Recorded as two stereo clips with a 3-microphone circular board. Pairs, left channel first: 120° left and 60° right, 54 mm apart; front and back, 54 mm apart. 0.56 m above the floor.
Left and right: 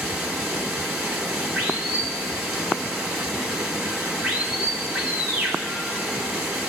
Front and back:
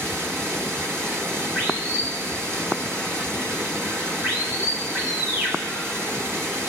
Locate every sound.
0.0 s running water: 130° right, 2.5 m